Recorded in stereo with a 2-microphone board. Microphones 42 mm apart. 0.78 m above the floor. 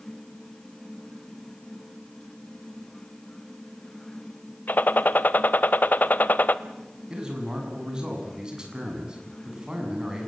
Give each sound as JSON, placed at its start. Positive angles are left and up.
{"t": 4.7, "sound": "a gunshot", "side_deg": 45, "distance_m": 0.8}
{"t": 7.1, "sound": "a man speaking", "side_deg": -20, "distance_m": 7.0}